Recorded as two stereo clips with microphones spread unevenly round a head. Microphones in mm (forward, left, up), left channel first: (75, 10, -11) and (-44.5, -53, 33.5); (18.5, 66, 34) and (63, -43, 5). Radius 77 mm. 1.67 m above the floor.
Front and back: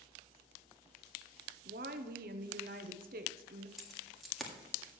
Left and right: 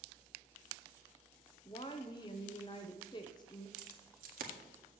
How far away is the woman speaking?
About 0.8 m.